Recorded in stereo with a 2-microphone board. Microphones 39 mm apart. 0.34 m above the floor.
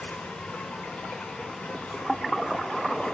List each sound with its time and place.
0.0 s an insect: 35° left (ahead or behind), 2.5 m